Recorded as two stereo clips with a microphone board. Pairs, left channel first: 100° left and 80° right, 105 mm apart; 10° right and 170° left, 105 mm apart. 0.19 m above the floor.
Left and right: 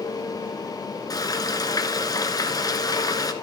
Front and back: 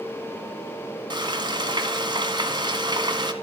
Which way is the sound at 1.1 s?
140° left.